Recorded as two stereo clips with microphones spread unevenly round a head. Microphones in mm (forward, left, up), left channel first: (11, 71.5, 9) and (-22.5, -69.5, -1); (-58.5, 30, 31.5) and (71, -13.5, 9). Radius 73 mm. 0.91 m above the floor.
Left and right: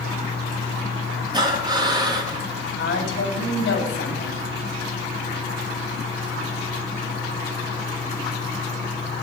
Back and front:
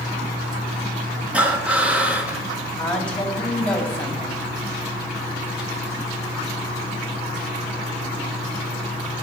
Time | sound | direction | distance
1.3 | breathing | 80° right | 0.9 m
2.8 | a woman speaking | 75° left | 1.9 m